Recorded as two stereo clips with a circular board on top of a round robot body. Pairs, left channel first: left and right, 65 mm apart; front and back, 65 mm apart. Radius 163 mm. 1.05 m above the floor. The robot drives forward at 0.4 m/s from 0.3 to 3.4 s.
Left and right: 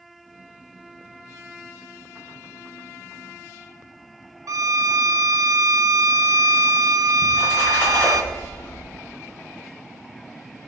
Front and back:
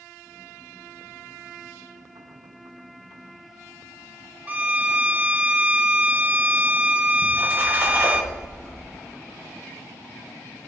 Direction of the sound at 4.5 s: 115° right.